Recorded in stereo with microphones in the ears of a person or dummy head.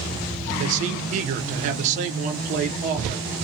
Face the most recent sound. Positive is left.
turn(degrees=-40)  # may be behind; listen again after turning